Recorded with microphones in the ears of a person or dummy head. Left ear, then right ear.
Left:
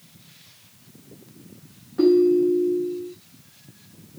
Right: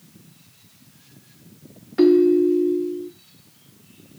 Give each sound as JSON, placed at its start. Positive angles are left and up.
{"t": 2.0, "sound": "a ringtone", "side_deg": -40, "distance_m": 1.3}